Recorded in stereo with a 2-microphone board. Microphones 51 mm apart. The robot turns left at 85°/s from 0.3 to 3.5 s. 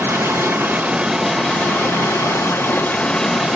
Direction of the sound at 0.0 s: 100° right.